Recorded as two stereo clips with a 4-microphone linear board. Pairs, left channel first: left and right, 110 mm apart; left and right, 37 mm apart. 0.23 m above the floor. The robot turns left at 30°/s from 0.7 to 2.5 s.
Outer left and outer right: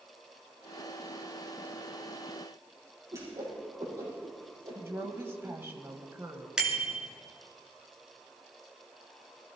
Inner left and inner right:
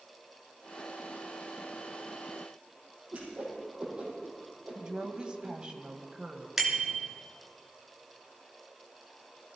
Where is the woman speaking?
20° right (ahead or behind), 1.6 m.